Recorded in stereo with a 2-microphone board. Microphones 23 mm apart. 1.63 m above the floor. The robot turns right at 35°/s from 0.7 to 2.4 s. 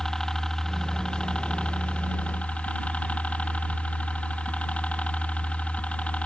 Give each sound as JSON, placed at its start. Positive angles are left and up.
{"t": 0.0, "sound": "a helicopter", "azimuth_deg": 25}